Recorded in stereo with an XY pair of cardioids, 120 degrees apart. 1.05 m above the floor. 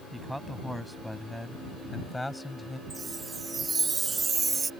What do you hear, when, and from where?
0.1 s a man speaking: straight ahead; by 2.8 s 15° left
2.9 s a chime: 20° right